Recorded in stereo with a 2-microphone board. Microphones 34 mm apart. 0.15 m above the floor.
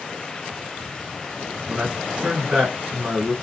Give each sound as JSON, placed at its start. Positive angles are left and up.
{"t": 1.7, "sound": "a man speaking", "side_deg": -30, "distance_m": 2.0}